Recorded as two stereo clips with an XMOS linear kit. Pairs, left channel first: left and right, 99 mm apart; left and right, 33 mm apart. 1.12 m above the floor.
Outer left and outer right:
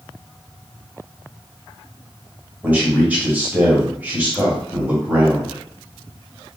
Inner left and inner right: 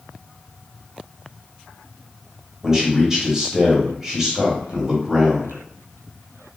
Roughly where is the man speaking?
Centre.